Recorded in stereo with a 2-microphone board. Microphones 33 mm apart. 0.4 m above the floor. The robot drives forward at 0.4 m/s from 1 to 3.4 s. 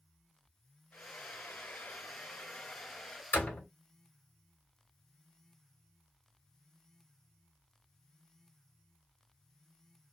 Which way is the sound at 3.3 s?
55° left (ahead or behind).